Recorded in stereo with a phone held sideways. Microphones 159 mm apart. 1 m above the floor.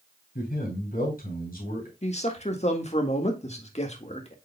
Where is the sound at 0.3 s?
75° left (ahead or behind), 4.5 m.